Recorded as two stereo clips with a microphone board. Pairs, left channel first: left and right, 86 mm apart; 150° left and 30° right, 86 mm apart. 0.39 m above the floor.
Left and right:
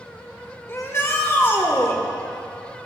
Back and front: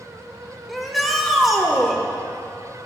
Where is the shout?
60° left, 1.1 m.